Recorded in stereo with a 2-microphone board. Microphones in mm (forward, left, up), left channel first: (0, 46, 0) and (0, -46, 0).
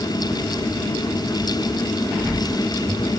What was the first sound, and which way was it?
Only background noise.